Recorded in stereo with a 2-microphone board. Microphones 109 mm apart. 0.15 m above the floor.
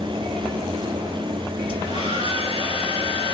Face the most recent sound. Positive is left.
turn(degrees=-55)  # may be behind; listen again after turning